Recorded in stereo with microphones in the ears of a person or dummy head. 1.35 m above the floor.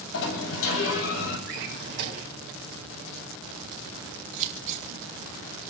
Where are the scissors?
45° right (ahead or behind), 2.5 m.